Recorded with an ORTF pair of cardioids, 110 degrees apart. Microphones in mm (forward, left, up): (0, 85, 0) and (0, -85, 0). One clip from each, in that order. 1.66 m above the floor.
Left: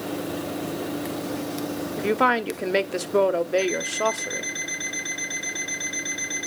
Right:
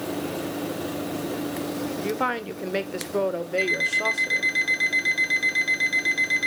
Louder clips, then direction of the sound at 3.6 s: Right 2 dB; 55° right.